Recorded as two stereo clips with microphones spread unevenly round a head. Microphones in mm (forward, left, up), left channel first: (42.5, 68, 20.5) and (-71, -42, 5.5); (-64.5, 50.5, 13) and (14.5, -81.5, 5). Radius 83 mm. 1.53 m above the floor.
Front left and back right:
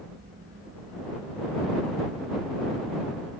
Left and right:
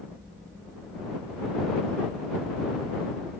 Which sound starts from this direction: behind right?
A fan, at 0.0 s.